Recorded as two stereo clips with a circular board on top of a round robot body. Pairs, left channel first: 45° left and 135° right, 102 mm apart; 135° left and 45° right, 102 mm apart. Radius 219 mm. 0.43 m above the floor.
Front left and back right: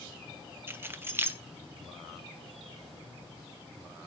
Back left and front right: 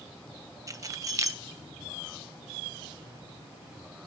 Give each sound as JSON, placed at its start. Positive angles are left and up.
{"t": 0.7, "sound": "keys jangling", "azimuth_deg": -80, "distance_m": 1.0}